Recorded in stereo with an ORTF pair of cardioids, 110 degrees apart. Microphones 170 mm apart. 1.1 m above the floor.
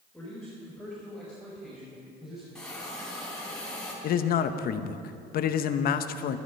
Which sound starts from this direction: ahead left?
A man speaking, at 4.0 s.